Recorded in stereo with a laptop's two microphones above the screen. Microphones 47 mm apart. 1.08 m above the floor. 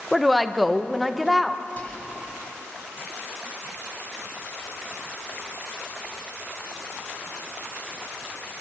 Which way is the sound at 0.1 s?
Centre (ahead or behind).